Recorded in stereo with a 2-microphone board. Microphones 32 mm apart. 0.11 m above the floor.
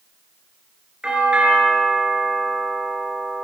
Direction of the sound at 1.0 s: 30° right (ahead or behind).